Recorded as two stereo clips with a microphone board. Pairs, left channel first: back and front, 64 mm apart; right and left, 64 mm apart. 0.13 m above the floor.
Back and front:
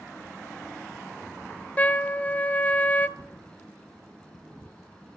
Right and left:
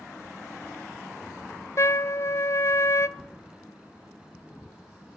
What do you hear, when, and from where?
1.8 s a trumpet: 120° right, 0.8 m
3.2 s a thud: 170° left, 4 m